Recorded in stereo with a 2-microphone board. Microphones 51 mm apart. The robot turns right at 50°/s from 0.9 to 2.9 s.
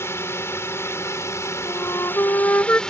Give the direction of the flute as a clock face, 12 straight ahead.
9 o'clock.